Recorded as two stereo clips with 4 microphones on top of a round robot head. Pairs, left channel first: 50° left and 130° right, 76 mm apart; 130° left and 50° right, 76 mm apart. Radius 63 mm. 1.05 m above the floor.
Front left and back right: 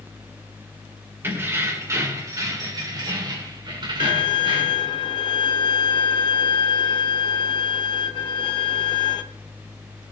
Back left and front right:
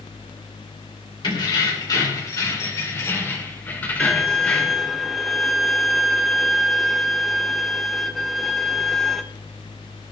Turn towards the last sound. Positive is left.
turn(degrees=40)